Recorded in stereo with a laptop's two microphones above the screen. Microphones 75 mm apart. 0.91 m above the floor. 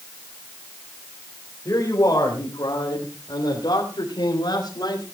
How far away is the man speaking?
About 4 m.